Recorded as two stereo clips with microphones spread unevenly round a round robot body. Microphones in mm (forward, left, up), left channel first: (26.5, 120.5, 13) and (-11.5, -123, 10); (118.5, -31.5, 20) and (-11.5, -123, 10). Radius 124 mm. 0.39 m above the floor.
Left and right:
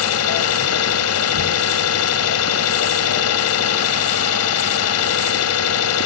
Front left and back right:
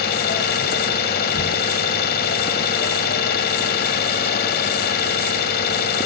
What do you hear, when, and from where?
0.0 s an engine running: 60° left, 1.7 m